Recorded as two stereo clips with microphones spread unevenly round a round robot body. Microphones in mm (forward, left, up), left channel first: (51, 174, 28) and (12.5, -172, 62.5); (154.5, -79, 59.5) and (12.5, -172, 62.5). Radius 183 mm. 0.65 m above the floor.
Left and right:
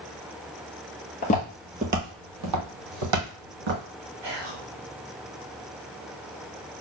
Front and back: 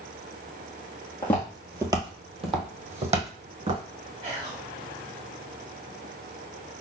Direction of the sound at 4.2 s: 105° right.